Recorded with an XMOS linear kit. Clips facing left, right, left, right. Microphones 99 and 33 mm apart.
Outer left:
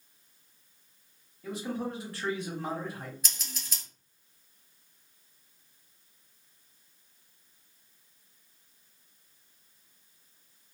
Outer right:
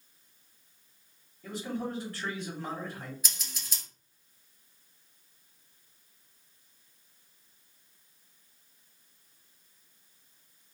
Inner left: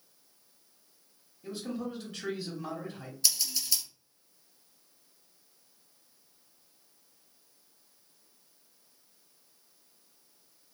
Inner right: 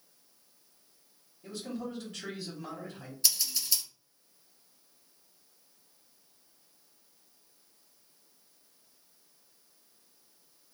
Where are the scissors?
5° right (ahead or behind), 1.7 m.